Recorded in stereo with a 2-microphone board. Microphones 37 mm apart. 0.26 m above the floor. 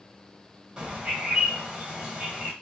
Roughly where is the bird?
Right.